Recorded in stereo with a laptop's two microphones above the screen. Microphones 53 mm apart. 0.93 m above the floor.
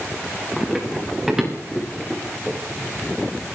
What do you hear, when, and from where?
0.6 s running footsteps: 5° right (ahead or behind), 7.5 m; by 2.6 s 10° right (ahead or behind), 6.5 m